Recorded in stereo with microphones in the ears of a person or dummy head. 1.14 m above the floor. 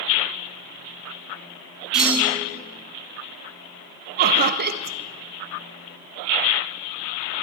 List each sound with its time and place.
1.9 s a clunk: 5° right (ahead or behind), 5.5 m
4.2 s laughter: 45° right (ahead or behind), 0.8 m